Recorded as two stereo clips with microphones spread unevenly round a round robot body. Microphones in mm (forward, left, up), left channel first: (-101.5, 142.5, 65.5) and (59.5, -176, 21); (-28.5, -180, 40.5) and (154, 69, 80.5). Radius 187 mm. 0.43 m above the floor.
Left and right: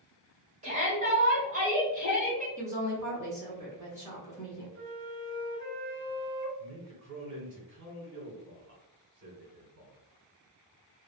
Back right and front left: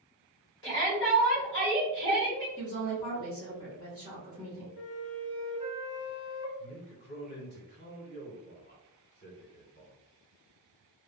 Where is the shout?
115° right, 1.8 m.